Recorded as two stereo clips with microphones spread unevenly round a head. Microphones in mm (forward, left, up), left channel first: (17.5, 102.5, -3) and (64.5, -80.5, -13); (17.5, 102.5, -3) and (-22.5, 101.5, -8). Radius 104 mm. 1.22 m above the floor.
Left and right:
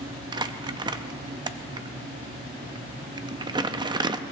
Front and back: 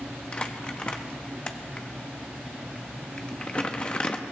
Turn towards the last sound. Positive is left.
turn(degrees=-20)